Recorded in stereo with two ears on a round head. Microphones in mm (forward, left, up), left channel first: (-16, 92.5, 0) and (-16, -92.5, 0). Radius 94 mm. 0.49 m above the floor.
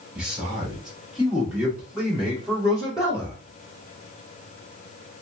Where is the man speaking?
5° right (ahead or behind), 1.9 m.